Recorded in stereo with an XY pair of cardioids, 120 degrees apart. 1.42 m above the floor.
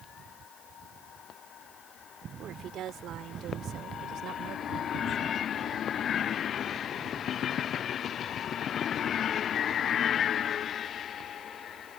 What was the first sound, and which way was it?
A woman speaking, 60° right.